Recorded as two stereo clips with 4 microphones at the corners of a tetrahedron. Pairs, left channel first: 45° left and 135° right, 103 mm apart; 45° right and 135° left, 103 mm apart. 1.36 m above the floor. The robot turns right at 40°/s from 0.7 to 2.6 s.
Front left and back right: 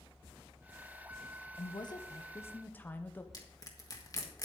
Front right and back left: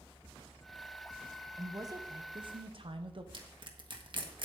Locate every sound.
1.6 s a woman speaking: 75° left, 0.8 m; by 3.2 s 115° left, 0.8 m
3.3 s crushing: 95° left, 1.5 m